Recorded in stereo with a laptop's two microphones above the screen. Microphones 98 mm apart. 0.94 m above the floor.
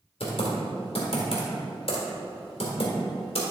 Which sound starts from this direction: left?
Typing on a keyboard, at 0.2 s.